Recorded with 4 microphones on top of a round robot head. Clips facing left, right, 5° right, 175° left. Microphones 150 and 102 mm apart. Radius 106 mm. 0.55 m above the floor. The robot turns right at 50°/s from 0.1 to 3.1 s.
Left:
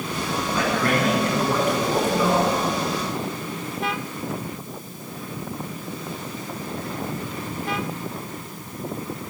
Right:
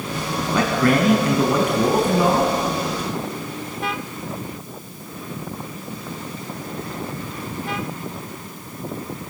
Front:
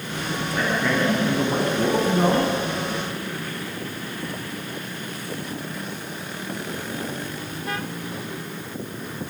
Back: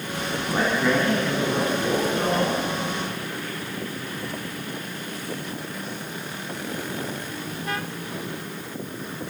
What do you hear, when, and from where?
0.5 s a man speaking: 120° right, 4.5 m; by 2.5 s 15° right, 4.5 m